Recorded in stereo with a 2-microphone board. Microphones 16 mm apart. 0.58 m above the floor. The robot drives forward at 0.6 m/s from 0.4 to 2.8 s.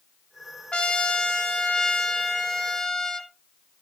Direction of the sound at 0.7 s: 85° left.